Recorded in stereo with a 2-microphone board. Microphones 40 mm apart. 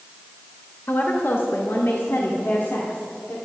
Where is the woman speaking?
50° left (ahead or behind), 1.1 m; by 3.4 s 60° left (ahead or behind), 2 m.